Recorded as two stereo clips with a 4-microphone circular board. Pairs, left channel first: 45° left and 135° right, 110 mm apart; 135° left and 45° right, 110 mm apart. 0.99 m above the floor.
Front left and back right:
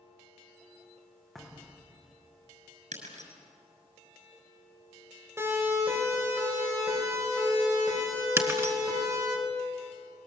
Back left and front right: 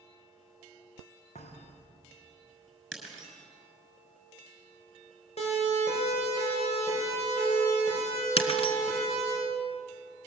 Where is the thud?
135° left, 3.5 m.